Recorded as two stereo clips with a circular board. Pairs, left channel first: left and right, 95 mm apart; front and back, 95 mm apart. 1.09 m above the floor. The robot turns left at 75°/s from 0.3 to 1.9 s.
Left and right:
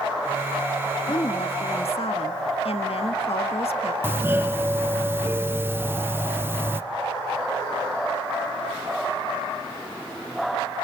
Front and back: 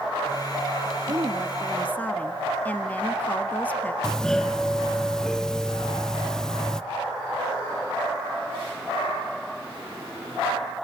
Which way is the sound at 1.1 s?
135° left.